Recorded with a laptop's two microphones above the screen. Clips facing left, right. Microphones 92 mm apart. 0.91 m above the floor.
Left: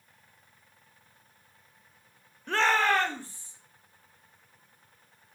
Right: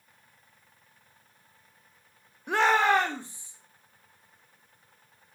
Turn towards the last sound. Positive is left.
turn(degrees=-20)  # may be behind; listen again after turning